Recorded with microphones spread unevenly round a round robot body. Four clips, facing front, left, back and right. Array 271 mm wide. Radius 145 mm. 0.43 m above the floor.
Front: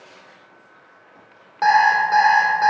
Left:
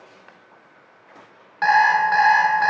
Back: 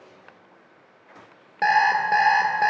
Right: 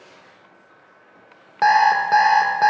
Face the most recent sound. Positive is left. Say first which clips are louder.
# right 1 dB, front 4 dB
turn(degrees=-110)